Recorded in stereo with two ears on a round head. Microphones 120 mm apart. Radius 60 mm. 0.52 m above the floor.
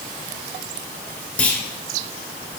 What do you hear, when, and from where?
1.4 s a clunk: 10° left (ahead or behind), 2.5 m